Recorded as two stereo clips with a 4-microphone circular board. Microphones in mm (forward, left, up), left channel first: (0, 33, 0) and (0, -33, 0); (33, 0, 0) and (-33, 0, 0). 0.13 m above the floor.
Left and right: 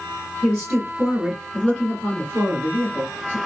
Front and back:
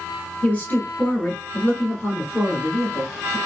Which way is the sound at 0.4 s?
30° right.